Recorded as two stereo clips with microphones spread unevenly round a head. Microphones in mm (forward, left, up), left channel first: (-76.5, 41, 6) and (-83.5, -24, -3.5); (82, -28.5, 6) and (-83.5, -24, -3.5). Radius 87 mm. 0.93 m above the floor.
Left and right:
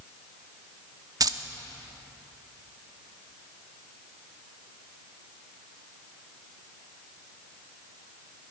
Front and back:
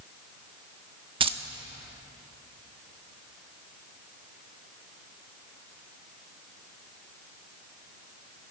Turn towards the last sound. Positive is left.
turn(degrees=-120)